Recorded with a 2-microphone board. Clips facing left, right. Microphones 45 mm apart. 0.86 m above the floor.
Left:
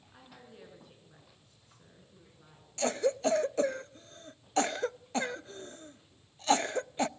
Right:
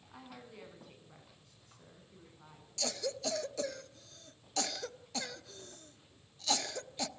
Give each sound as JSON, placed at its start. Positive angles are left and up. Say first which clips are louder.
{"t": 0.1, "sound": "a woman speaking", "louder": "right 3 dB", "side_deg": -85, "distance_m": 9.0}
{"t": 2.8, "sound": "a cough", "louder": "left 9 dB", "side_deg": 35, "distance_m": 0.5}